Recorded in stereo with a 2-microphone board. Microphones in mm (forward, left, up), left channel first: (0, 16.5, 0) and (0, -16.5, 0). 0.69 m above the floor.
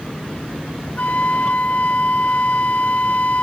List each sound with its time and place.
1.0 s a flute: 55° left (ahead or behind)